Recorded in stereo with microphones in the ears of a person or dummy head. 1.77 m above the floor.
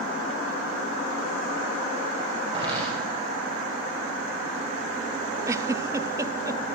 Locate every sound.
2.5 s footsteps: 35° right (ahead or behind), 4 m
5.5 s a giggle: 15° right (ahead or behind), 0.6 m